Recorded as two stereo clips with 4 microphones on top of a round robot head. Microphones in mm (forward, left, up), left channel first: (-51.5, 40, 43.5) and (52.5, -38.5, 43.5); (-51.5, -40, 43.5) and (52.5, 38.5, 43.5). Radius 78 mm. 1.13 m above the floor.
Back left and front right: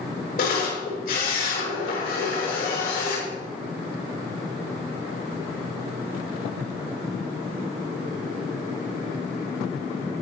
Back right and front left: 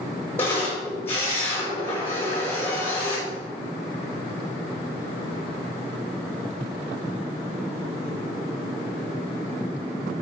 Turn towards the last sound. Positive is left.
turn(degrees=140)